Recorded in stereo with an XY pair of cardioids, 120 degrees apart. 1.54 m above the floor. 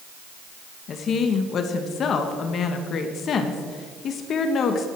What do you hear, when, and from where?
0.9 s a woman speaking: 50° left, 1.4 m